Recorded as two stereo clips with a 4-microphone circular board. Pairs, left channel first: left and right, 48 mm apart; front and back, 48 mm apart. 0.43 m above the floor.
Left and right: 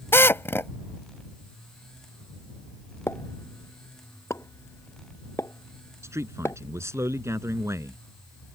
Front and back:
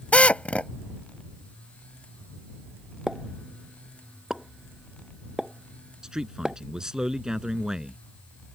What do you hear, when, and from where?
0.1 s a drill: 60° left
3.1 s a pop: 105° left
6.0 s a man speaking: 105° right